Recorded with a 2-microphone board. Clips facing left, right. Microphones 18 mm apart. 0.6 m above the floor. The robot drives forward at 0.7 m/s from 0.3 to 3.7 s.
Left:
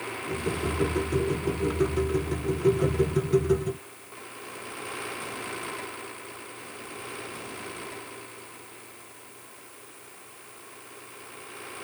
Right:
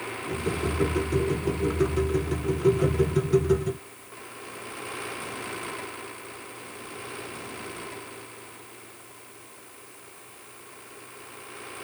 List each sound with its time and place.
Only background noise.